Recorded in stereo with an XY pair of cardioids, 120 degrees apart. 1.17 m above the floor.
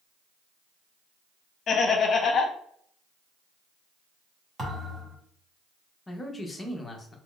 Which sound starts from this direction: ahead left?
Laughter, at 1.7 s.